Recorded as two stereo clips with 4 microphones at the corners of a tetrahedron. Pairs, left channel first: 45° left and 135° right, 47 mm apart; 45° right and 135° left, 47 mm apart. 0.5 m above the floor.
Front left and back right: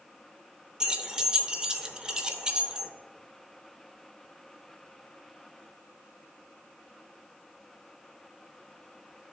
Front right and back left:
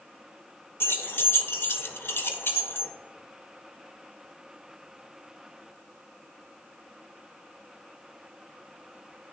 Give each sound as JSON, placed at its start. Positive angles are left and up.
{"t": 0.8, "sound": "keys jangling", "azimuth_deg": -65, "distance_m": 0.8}